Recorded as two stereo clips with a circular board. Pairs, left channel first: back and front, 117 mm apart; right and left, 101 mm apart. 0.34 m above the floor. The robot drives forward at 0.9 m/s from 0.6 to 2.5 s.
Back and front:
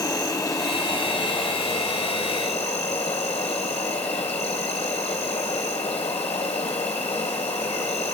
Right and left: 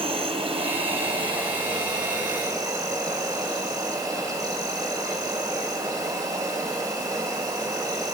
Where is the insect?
115° left, 2.5 m; by 8.2 s 145° left, 3.5 m.